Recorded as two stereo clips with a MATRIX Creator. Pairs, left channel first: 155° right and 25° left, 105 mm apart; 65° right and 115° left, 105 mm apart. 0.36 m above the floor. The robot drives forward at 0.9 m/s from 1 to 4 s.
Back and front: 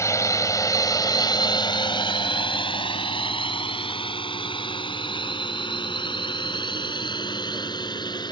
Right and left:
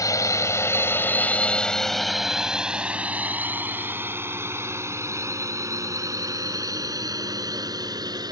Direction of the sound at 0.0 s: 110° right.